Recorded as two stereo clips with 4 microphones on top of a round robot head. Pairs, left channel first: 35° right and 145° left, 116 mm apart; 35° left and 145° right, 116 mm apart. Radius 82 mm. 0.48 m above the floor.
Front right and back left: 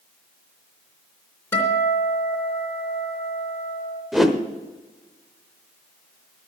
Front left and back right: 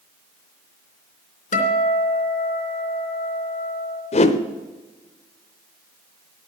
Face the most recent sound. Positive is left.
turn(degrees=55)